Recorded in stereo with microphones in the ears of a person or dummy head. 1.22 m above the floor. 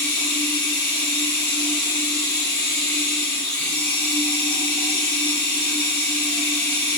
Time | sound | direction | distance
0.0 | running water | 80° right | 1.0 m